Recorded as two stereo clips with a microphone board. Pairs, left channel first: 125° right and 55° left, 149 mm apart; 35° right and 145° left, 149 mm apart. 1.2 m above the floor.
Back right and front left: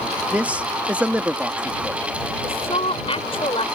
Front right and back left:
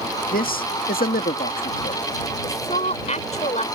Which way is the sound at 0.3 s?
25° right.